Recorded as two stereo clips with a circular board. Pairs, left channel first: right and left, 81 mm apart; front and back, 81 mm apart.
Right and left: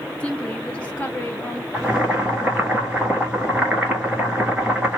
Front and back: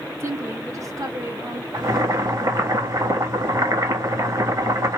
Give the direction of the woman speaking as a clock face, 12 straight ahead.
5 o'clock.